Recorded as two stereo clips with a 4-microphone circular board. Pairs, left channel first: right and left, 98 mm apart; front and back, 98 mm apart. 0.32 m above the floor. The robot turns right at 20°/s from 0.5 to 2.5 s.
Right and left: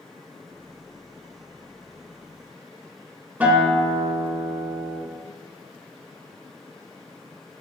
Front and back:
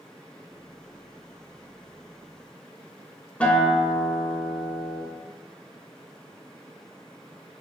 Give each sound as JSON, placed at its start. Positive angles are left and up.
{"t": 3.4, "sound": "a guitar", "azimuth_deg": 50, "distance_m": 0.6}